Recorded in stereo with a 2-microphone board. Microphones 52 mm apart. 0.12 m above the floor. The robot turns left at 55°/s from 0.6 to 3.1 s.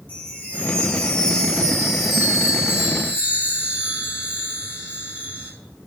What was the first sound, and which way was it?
A chime, 25° left (ahead or behind).